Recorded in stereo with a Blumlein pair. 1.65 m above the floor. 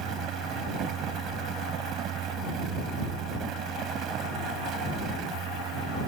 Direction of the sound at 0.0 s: 30° right.